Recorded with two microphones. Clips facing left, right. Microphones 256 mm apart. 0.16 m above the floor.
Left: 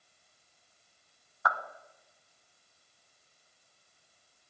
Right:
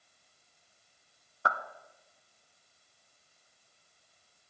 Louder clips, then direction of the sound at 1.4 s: Even; 30° right (ahead or behind).